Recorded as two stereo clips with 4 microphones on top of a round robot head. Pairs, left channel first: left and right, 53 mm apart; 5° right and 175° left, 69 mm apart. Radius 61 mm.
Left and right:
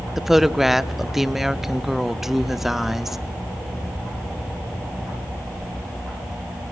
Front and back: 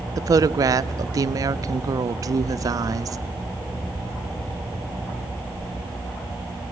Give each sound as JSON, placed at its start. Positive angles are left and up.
{"t": 0.2, "sound": "a woman speaking", "azimuth_deg": -175, "distance_m": 0.6}